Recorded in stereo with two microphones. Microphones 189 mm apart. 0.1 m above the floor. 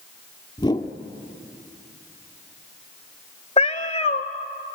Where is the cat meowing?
30° left (ahead or behind), 0.9 m.